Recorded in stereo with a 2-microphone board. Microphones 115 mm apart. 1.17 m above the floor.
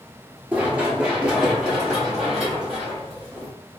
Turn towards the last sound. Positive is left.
turn(degrees=0)  # may be behind; listen again after turning